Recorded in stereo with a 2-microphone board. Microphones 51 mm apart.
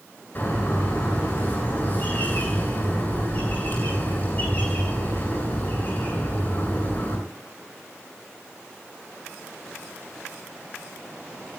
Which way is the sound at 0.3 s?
35° left (ahead or behind).